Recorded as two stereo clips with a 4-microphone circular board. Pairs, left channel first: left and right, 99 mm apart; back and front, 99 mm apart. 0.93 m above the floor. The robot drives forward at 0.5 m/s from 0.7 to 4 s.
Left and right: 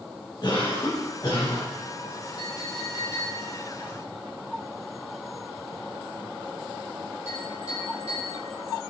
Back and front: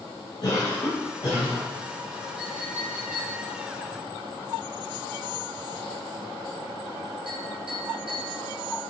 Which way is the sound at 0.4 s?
140° left.